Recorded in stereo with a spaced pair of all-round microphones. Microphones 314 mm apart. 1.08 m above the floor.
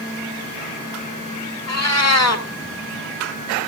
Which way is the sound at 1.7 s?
55° left (ahead or behind).